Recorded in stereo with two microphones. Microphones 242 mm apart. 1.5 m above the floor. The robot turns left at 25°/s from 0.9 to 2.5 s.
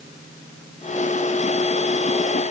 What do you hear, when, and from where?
Only background noise.